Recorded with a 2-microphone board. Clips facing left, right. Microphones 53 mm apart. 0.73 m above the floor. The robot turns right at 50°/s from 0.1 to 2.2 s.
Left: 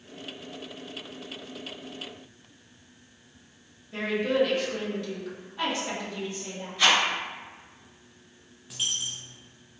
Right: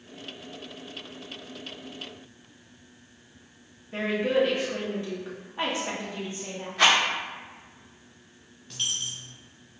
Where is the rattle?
65° right (ahead or behind), 1.1 m.